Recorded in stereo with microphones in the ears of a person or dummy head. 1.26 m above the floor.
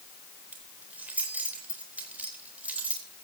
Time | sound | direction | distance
0.5 | keys jangling | 10° right (ahead or behind) | 3.5 m